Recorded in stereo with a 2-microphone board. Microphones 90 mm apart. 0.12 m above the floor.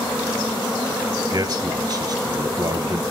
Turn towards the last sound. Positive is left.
turn(degrees=-40)  # may be behind; listen again after turning